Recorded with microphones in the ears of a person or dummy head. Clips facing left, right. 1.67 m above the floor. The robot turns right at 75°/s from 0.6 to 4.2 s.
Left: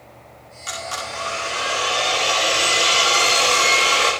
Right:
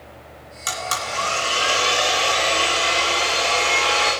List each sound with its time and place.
0.7 s a blender: 120° right, 5.5 m; by 4.1 s 140° left, 5.5 m